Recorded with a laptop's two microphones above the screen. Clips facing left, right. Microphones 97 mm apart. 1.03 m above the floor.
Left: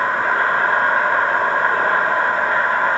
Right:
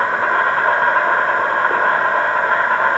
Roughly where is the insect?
Right.